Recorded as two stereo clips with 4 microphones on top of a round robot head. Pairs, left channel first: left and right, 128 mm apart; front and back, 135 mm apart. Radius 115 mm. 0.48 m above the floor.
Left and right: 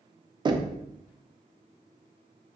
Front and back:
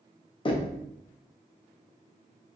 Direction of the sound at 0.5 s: 40° right.